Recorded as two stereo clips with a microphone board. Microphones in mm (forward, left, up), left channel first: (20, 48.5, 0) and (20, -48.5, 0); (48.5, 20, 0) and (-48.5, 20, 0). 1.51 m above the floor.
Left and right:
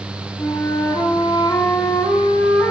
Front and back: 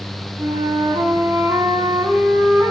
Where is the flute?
135° left, 1.2 m.